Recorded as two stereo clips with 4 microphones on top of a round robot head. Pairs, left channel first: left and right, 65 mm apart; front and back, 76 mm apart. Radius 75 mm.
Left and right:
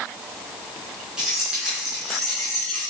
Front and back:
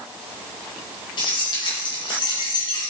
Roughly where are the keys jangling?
Ahead.